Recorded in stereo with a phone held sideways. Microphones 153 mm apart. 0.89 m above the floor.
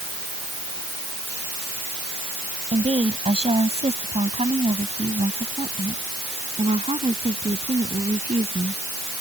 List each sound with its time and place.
2.7 s a woman speaking: 40° right (ahead or behind); by 9.2 s 45° right (ahead or behind)